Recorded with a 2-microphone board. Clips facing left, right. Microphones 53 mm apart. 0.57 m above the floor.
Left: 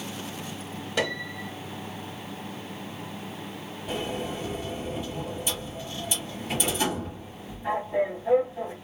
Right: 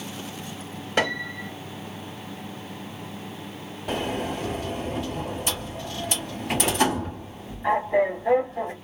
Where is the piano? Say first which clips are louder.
Right 4 dB; 45° right (ahead or behind), 1.0 m.